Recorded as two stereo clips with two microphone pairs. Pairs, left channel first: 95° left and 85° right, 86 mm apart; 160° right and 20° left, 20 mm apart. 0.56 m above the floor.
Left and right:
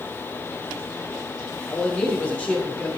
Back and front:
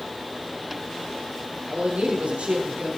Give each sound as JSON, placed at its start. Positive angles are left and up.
{"t": 1.7, "sound": "a man speaking", "azimuth_deg": 20, "distance_m": 6.0}